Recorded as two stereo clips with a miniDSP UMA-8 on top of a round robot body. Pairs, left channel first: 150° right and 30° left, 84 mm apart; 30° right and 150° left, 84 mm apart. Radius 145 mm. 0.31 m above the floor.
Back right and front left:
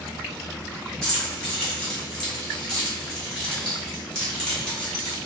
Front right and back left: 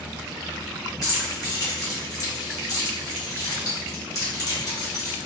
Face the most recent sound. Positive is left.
turn(degrees=-70)